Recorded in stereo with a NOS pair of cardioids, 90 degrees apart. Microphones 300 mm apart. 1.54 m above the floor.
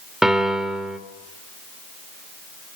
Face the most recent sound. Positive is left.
turn(degrees=0)